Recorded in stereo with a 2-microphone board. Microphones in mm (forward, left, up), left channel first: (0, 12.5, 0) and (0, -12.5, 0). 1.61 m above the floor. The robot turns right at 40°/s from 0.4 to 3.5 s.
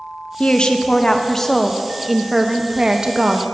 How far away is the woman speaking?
About 0.6 m.